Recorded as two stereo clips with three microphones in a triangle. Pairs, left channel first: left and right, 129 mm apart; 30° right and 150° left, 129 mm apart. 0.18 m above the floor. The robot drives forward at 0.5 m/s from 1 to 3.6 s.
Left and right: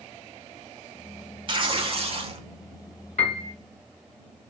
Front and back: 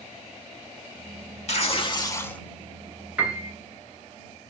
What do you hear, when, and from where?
1.5 s tearing paper: 45° right, 0.6 m; by 2.4 s 110° right, 0.5 m
3.2 s a piano: 75° left, 0.9 m; by 3.5 s 85° left, 0.9 m